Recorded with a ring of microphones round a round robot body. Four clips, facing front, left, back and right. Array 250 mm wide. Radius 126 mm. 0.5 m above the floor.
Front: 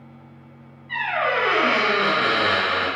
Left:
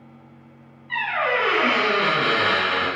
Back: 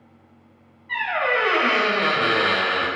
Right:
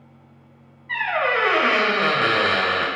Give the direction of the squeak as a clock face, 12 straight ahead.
4 o'clock.